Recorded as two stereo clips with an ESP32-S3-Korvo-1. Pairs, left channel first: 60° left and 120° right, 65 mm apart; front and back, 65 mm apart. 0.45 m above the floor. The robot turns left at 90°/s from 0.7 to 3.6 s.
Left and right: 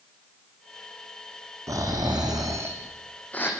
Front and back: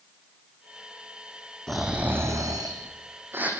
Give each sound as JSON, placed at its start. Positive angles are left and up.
{"t": 1.7, "sound": "snoring", "azimuth_deg": -80, "distance_m": 7.0}